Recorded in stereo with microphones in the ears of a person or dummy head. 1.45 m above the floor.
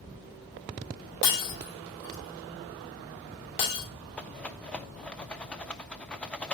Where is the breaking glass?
60° left (ahead or behind), 3 m.